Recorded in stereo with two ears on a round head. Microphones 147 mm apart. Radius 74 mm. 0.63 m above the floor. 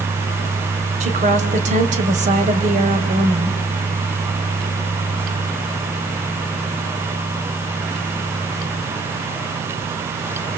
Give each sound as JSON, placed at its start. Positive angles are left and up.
{"t": 1.0, "sound": "a woman speaking", "side_deg": -45, "distance_m": 3.5}